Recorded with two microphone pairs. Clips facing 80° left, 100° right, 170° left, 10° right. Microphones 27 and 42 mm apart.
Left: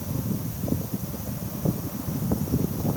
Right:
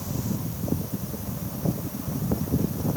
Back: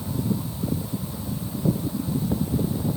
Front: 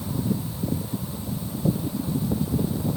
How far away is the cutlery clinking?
No cutlery clinking in this recording.